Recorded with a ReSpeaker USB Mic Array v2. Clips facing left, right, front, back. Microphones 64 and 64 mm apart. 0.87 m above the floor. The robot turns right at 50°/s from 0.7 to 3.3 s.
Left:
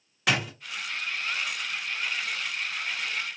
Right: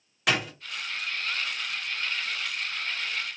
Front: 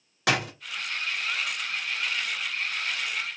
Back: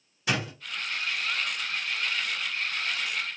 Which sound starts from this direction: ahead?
A door slam, at 0.3 s.